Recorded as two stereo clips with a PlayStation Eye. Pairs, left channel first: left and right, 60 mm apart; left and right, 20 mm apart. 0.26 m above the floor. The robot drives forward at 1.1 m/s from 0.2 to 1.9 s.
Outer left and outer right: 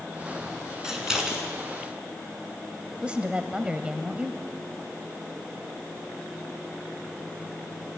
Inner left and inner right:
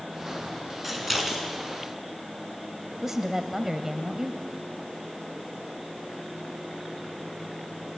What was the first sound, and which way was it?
Scissors, 10° right (ahead or behind).